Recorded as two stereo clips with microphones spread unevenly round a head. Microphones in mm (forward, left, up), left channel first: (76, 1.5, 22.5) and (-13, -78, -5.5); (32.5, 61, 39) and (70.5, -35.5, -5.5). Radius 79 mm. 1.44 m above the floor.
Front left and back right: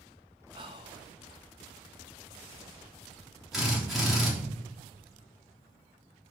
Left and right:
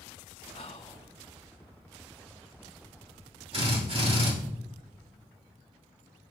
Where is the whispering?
170° left, 0.6 m.